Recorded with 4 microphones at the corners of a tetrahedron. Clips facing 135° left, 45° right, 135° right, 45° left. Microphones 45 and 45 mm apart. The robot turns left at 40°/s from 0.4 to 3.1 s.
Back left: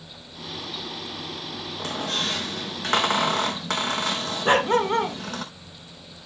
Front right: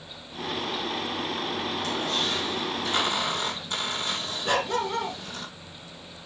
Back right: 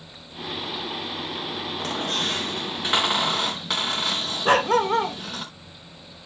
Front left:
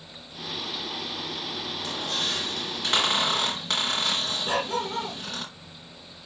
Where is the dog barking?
170° right, 1.2 m.